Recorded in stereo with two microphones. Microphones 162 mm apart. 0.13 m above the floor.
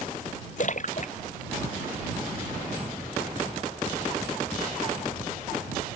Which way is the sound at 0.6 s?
55° left (ahead or behind).